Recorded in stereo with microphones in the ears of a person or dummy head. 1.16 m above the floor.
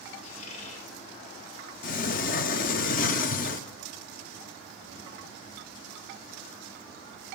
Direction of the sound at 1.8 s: 40° left (ahead or behind).